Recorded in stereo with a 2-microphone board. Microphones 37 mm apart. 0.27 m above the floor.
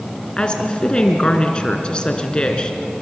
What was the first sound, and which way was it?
A woman speaking, 25° left (ahead or behind).